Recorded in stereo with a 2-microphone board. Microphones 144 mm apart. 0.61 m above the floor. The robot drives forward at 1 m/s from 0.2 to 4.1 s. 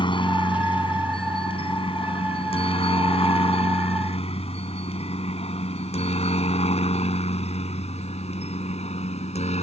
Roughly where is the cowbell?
I don't hear a cowbell.